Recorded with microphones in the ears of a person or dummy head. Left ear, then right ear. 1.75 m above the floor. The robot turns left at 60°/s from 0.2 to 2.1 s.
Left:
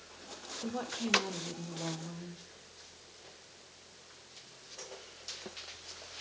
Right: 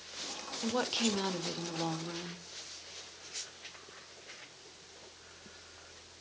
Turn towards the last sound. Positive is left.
turn(degrees=-115)